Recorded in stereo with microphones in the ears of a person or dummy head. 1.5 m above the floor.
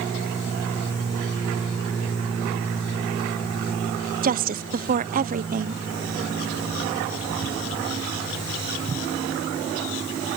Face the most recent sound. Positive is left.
turn(degrees=-40)  # may be behind; listen again after turning